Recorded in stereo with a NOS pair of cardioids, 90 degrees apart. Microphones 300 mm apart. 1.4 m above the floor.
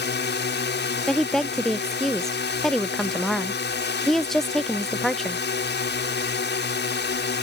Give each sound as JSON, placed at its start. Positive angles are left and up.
{"t": 0.0, "sound": "a drone", "azimuth_deg": 35}
{"t": 1.1, "sound": "a woman speaking", "azimuth_deg": 0}